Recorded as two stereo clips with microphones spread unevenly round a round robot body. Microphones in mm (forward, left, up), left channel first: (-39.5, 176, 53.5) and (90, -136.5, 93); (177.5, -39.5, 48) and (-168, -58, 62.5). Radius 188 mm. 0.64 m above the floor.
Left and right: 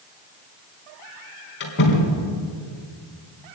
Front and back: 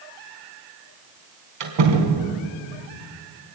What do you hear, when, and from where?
1.6 s a door slam: 175° left, 4 m